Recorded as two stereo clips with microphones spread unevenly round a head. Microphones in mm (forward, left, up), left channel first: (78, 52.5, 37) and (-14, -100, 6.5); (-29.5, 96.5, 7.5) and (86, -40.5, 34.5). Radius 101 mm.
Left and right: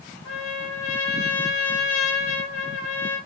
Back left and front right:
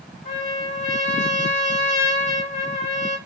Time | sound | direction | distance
0.2 | a trumpet | 80° left | 1.4 m